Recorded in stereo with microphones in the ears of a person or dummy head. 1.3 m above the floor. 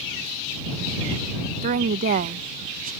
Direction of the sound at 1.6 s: 40° right (ahead or behind).